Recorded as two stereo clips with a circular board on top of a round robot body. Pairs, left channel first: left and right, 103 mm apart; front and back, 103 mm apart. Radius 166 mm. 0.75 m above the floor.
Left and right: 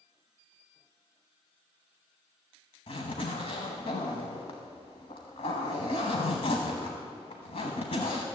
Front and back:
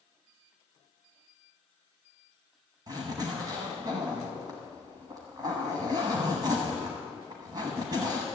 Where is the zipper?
125° left, 0.9 m.